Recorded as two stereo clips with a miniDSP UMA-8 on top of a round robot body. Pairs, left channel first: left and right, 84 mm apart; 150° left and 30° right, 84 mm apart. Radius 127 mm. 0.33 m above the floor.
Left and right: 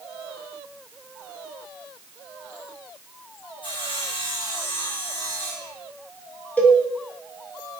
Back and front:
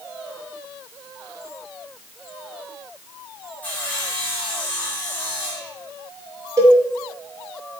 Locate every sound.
3.6 s sawing: 80° left, 5 m
6.6 s a cowbell: 20° left, 2.5 m